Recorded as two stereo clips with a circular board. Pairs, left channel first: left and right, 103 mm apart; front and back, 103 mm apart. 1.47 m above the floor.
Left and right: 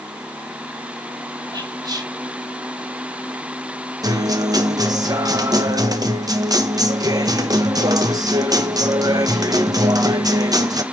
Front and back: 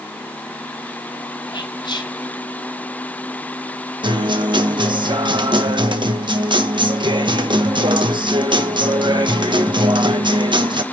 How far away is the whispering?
About 3.5 m.